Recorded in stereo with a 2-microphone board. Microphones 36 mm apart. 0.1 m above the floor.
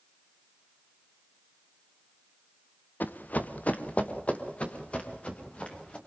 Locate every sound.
3.0 s running footsteps: 55° left (ahead or behind), 1.4 m; by 6.0 s 30° left (ahead or behind), 5 m